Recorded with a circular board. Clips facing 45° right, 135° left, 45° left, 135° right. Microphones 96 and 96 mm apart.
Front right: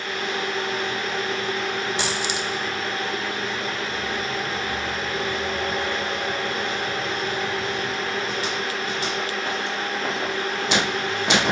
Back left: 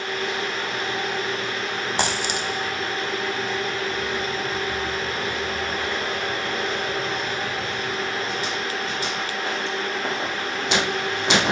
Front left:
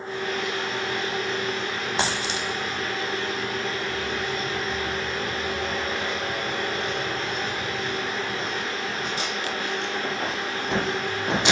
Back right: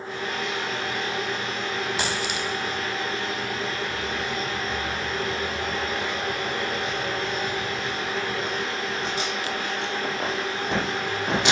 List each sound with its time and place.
2.0 s a dropped coin: 105° left, 0.9 m